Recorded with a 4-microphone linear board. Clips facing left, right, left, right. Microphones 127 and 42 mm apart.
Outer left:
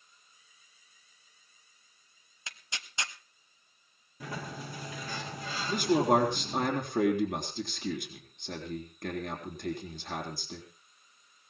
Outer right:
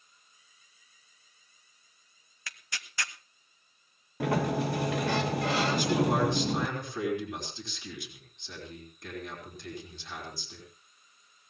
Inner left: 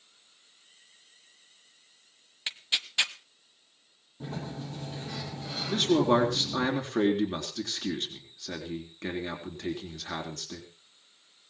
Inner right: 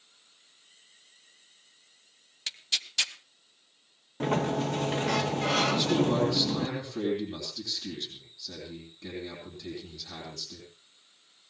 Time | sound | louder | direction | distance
2.5 | tearing paper | outer right 1 dB, inner left 2 dB | 20° left (ahead or behind) | 0.9 m
4.2 | a sliding door | outer right 13 dB, inner right 11 dB | 75° right (ahead or behind) | 0.8 m
5.7 | a man speaking | outer left 6 dB, inner left 2 dB | 55° left (ahead or behind) | 3.5 m